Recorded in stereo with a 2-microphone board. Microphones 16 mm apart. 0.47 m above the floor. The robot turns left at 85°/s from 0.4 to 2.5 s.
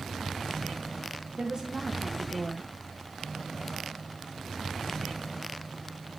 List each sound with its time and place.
1.4 s a woman speaking: 105° right, 2.5 m; by 2.7 s 160° left, 2.5 m